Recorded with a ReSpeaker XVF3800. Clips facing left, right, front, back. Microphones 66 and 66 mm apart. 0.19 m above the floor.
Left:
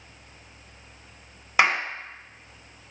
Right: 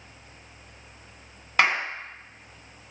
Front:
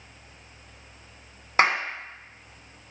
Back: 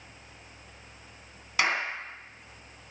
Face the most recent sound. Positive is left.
turn(degrees=10)